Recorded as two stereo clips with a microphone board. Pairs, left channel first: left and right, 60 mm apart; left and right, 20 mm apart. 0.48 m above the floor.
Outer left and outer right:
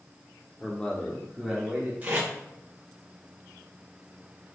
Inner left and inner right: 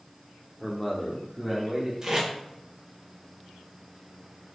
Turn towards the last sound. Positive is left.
turn(degrees=-30)  # may be behind; listen again after turning